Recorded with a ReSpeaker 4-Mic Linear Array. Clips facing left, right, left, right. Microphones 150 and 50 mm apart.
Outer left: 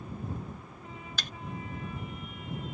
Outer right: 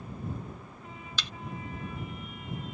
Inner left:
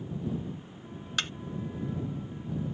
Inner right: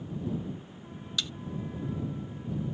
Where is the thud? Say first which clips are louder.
Outer right 4 dB, inner left 3 dB; 50° left (ahead or behind).